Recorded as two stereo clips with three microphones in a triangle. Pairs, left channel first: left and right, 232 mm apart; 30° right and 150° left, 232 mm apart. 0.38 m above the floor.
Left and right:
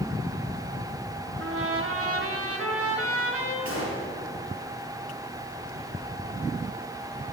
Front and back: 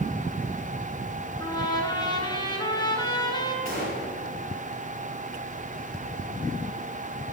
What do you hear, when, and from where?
1.4 s a trumpet: 105° right, 1.5 m
3.6 s a gunshot: 100° left, 4 m